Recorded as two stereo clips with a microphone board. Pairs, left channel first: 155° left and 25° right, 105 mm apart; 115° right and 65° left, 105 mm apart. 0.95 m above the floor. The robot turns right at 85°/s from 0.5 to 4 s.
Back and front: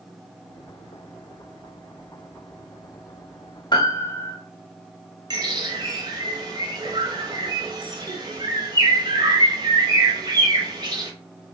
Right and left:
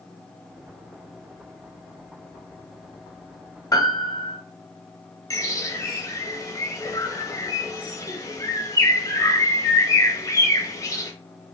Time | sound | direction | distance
3.7 | a piano | 165° right | 1.2 m
5.3 | a bird | 60° right | 1.0 m